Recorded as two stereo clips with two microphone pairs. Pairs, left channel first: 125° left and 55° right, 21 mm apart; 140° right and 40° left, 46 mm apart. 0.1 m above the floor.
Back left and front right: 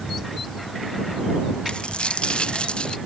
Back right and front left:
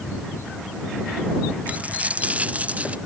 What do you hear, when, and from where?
1.7 s a dropped coin: 95° left